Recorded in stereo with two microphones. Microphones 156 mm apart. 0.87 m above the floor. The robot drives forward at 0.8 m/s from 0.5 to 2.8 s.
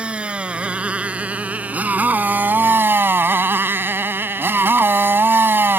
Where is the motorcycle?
10° right (ahead or behind); by 5.8 s 15° right (ahead or behind).